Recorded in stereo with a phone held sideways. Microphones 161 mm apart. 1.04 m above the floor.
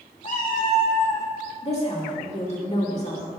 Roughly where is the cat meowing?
Left.